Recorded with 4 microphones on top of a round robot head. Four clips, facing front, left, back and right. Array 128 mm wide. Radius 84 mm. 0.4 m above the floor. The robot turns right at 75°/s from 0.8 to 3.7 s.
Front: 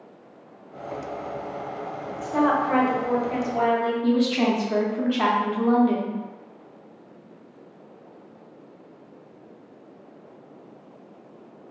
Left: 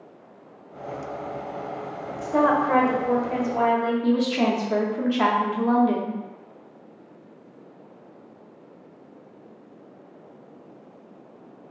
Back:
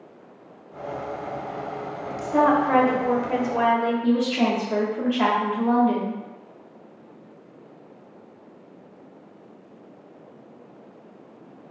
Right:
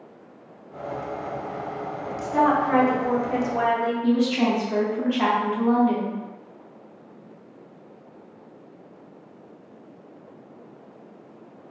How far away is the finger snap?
I don't hear a finger snap.